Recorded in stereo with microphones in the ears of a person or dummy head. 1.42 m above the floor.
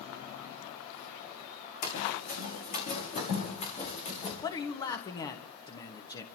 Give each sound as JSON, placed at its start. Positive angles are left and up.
{"t": 1.8, "sound": "running footsteps", "side_deg": 50, "distance_m": 6.0}
{"t": 4.4, "sound": "a man speaking", "side_deg": 20, "distance_m": 1.3}